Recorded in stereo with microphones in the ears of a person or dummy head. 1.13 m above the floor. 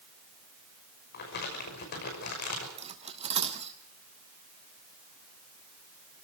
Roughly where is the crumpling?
Left.